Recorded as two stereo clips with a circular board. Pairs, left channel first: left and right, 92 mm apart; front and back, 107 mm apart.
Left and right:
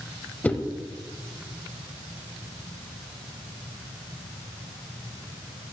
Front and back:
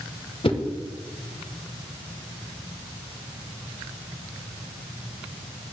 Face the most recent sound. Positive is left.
turn(degrees=20)